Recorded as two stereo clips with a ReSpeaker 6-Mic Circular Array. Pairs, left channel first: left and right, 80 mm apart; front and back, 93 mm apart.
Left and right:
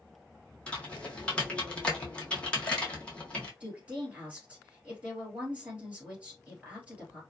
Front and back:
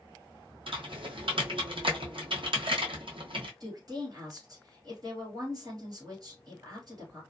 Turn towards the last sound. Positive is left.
turn(degrees=-160)